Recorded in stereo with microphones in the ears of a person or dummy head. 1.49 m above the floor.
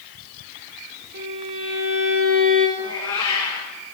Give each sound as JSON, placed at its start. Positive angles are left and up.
{"t": 1.1, "sound": "a violin", "side_deg": -60, "distance_m": 1.9}
{"t": 2.8, "sound": "a cat meowing", "side_deg": 30, "distance_m": 1.8}